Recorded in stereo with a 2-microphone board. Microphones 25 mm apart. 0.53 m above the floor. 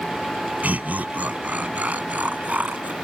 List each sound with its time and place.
0.6 s laughter: 80° right